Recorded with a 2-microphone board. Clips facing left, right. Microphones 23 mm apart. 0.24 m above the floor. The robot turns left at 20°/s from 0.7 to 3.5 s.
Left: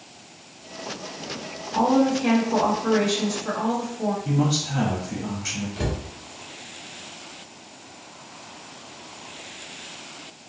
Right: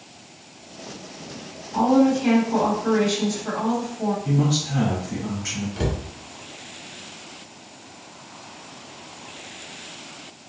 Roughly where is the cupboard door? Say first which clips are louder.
Right 2 dB; centre.